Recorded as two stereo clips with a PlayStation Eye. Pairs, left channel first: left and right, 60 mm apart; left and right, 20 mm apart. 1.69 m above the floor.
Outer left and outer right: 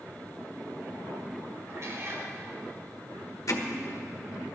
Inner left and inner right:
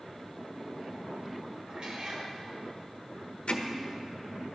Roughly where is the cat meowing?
Right.